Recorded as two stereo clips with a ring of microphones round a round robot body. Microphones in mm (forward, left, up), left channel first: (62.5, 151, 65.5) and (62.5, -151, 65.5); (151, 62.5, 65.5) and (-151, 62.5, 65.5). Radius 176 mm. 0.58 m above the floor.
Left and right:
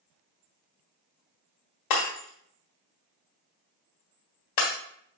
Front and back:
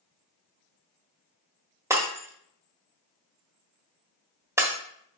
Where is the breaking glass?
100° left, 1.4 m.